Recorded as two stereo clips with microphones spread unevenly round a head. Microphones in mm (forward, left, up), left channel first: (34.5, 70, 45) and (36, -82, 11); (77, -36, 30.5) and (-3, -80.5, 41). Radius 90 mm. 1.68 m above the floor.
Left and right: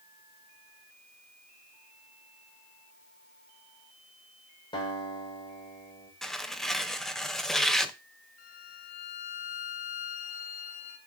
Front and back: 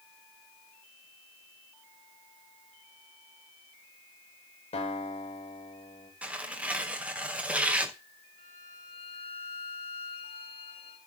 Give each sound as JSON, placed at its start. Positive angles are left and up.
{"t": 4.7, "sound": "a guitar", "azimuth_deg": 35, "distance_m": 8.5}
{"t": 6.2, "sound": "tearing paper", "azimuth_deg": 150, "distance_m": 0.9}
{"t": 8.4, "sound": "a violin", "azimuth_deg": 75, "distance_m": 3.0}